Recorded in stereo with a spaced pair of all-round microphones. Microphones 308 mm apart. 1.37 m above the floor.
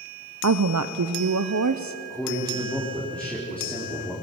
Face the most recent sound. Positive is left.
turn(degrees=5)  # may be behind; listen again after turning